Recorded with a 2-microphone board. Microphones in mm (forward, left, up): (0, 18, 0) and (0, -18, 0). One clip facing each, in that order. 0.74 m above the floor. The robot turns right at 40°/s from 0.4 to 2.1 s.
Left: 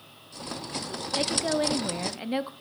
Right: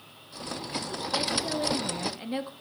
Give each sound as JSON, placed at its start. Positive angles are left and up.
{"t": 1.2, "sound": "a woman speaking", "azimuth_deg": 120, "distance_m": 1.1}